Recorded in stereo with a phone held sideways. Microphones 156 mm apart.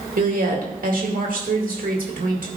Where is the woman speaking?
75° right (ahead or behind), 2 m.